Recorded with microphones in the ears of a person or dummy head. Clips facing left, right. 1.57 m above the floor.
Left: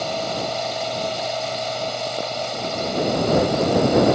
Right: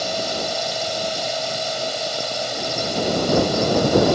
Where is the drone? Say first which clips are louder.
Even; 20° right (ahead or behind).